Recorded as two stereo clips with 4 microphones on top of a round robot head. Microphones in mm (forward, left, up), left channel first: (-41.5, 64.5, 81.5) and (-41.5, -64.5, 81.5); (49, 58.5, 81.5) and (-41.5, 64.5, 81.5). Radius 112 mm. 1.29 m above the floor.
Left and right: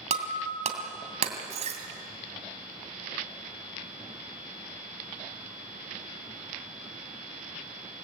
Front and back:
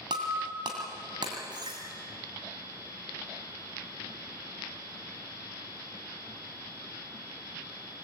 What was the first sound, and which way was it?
Breaking glass, 125° right.